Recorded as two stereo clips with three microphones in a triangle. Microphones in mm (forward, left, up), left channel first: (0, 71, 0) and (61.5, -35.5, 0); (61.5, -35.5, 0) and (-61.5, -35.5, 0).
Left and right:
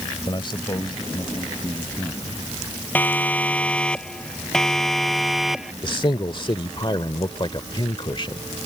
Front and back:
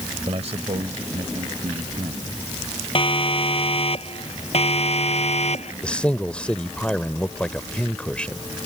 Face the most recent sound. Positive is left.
turn(degrees=80)